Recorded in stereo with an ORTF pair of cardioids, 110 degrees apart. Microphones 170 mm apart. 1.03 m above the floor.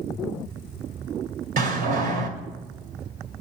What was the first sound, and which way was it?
A door slam, 60° right.